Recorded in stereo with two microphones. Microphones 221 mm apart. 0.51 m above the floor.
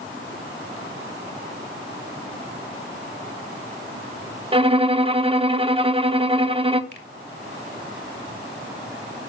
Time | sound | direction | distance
4.5 | a violin | 25° right (ahead or behind) | 0.7 m
6.9 | a finger snap | 50° left (ahead or behind) | 1.7 m